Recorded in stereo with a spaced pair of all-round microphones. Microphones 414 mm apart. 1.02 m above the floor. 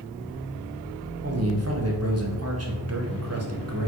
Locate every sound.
1.2 s a man speaking: 35° right (ahead or behind), 0.8 m